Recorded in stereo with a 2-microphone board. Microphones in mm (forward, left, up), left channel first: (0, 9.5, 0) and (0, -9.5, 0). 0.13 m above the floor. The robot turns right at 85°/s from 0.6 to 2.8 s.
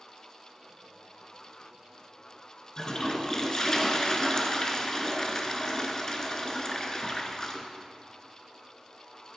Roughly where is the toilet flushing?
Left.